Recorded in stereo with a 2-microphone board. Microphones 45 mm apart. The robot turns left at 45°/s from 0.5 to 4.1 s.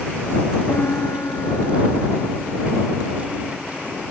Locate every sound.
0.7 s a piano: 120° left; by 4.0 s 30° right